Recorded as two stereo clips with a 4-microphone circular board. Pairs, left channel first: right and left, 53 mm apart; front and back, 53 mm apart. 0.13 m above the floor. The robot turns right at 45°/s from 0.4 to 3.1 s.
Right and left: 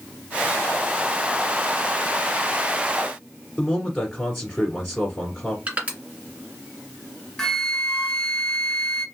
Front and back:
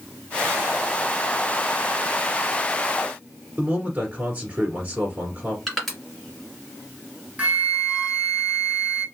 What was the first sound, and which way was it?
A man speaking, 165° right.